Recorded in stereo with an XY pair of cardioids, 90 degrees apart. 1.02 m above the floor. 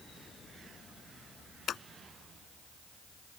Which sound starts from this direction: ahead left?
Scissors, at 1.7 s.